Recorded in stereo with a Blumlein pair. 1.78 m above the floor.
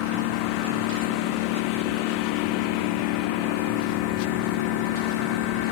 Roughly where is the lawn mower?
Ahead left.